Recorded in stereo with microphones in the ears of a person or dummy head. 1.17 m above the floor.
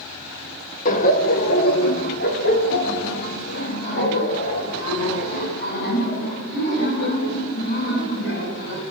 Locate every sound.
0.8 s laughter: 40° left (ahead or behind), 1.6 m; by 8.8 s 60° left (ahead or behind), 9 m